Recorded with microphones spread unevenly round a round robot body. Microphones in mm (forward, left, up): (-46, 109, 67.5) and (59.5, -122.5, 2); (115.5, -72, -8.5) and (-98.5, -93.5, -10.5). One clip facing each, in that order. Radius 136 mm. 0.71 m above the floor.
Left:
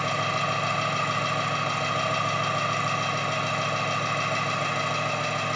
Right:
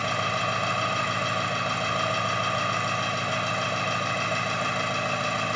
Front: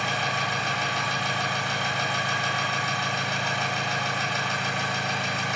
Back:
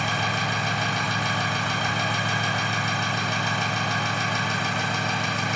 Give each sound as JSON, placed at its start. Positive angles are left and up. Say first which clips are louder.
{"t": 0.0, "sound": "an engine running", "louder": "left 1 dB, back 2 dB", "azimuth_deg": -155, "distance_m": 1.8}